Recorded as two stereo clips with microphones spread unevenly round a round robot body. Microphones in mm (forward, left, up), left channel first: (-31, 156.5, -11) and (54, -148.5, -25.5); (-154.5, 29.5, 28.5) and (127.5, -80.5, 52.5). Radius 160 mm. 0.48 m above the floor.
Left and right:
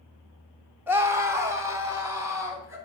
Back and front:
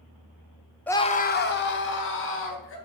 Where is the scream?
140° right, 0.7 m; by 2.8 s 155° right, 3 m.